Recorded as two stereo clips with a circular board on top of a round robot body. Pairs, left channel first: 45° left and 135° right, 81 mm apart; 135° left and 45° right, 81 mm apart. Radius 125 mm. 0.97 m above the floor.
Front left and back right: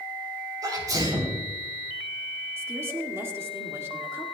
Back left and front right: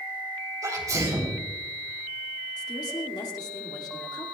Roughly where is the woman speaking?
Behind.